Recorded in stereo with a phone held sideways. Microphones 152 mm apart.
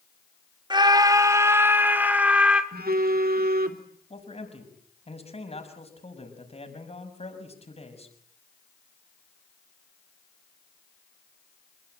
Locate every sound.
0.7 s a scream: 30° right (ahead or behind), 2 m; by 2.6 s 5° right (ahead or behind), 3.5 m
2.7 s a phone buzzing: 80° right, 2.5 m
4.1 s a man speaking: 40° left (ahead or behind), 6 m